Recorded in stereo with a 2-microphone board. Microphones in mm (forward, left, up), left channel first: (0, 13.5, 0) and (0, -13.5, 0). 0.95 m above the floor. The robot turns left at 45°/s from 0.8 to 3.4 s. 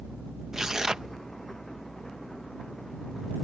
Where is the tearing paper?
20° right (ahead or behind); by 1.1 s 30° right (ahead or behind).